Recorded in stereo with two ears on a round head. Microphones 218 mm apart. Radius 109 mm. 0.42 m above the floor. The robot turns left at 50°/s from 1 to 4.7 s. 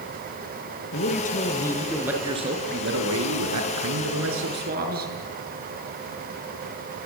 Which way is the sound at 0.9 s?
45° left.